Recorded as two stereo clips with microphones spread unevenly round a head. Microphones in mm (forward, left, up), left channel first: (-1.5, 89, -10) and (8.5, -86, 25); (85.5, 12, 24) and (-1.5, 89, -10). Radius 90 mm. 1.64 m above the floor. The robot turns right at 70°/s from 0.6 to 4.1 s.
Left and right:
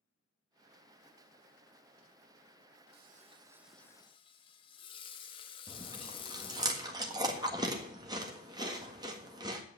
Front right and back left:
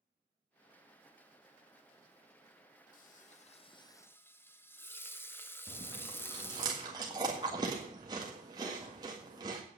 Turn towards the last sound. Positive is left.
turn(degrees=-150)